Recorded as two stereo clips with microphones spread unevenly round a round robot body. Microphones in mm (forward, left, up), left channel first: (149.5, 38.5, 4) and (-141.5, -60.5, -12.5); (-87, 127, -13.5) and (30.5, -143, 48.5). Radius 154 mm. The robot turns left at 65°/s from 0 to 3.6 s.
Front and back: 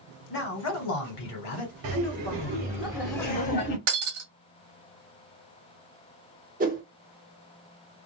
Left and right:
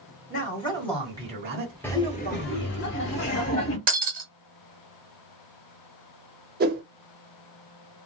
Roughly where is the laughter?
Behind.